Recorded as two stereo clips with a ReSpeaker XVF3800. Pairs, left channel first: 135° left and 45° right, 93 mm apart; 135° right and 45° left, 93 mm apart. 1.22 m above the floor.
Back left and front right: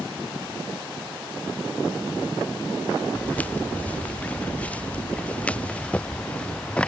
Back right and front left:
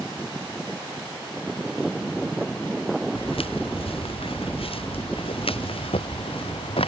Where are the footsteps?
150° right; by 6.9 s 145° right.